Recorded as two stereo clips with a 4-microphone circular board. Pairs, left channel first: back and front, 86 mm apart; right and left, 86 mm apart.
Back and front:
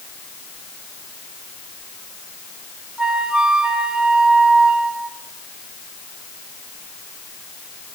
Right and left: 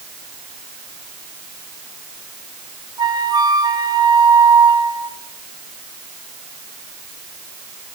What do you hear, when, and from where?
3.0 s a flute: 80° left, 2.0 m